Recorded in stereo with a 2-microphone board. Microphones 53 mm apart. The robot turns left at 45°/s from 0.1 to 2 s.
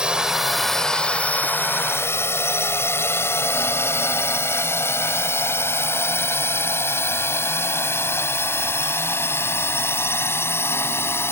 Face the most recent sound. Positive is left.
turn(degrees=50)  # may be behind; listen again after turning